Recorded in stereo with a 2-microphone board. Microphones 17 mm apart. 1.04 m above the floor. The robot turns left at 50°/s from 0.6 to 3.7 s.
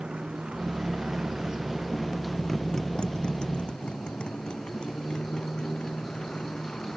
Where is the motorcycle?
80° right; by 7.0 s 55° left (ahead or behind).